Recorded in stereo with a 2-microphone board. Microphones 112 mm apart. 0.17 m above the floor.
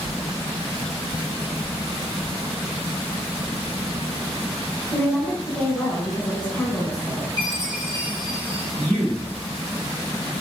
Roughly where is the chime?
Right.